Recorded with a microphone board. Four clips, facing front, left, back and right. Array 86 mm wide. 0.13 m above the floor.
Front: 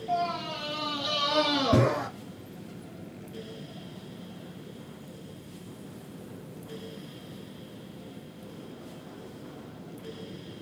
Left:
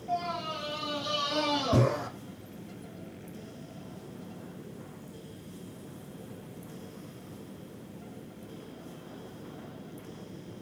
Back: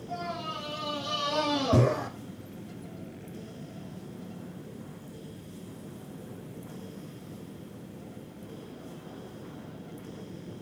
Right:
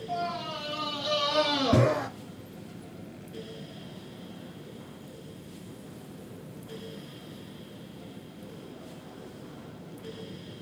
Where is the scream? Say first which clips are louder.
Left 1 dB, front 6 dB; 20° left, 3 m; by 2.1 s 65° right, 2.5 m.